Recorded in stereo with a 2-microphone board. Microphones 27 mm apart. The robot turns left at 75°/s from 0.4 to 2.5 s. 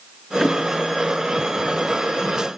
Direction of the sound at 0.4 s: 15° left (ahead or behind).